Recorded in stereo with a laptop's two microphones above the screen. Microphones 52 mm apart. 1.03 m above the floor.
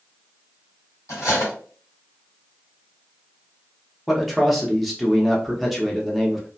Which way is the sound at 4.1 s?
Centre (ahead or behind).